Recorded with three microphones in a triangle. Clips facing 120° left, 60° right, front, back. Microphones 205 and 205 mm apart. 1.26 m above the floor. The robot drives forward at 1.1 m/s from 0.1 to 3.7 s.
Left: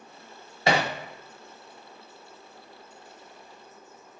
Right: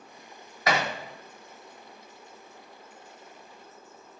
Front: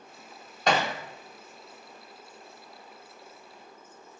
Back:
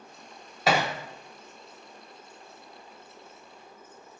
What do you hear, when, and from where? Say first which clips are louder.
0.7 s hammering: left 3 dB, back 1 dB; 100° left, 0.9 m; by 0.9 s 130° left, 0.9 m